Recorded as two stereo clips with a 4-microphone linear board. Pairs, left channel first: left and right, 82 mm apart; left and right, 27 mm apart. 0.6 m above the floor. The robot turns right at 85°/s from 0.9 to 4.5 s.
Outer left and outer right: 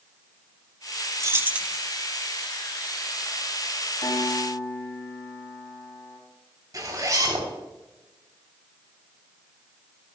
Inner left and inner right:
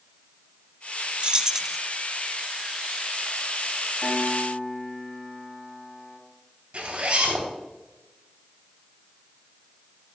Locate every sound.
1.2 s keys jangling: 50° right, 0.7 m; by 1.8 s 5° right, 0.7 m
4.0 s a piano: 110° left, 4 m; by 6.2 s 150° left, 4 m
6.7 s a zipper: 50° right (ahead or behind), 3 m